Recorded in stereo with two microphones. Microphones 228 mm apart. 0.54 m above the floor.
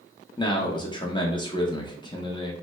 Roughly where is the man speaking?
Centre.